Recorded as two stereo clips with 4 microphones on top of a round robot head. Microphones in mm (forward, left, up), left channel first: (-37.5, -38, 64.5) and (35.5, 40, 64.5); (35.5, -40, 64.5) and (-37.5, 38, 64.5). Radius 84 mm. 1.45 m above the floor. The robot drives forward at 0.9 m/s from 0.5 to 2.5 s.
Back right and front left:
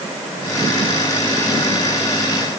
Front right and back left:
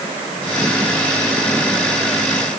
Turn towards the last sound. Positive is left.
No sound to turn to.